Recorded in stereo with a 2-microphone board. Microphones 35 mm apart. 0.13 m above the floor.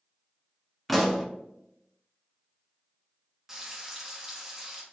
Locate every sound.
0.9 s a pop: centre (ahead or behind), 0.9 m
3.5 s frying: 10° right (ahead or behind), 1.5 m